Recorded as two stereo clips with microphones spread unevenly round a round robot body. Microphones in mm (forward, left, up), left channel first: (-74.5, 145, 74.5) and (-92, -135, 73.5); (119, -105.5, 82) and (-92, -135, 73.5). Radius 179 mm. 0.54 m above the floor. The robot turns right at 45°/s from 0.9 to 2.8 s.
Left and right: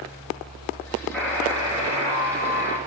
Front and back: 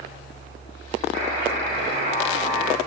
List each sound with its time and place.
1.1 s a buzzer: 170° left, 1.5 m; by 2.8 s 115° right, 1.5 m